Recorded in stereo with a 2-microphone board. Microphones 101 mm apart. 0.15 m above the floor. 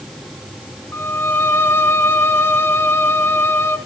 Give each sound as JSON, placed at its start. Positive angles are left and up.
{"t": 0.9, "sound": "a violin", "side_deg": 25, "distance_m": 0.9}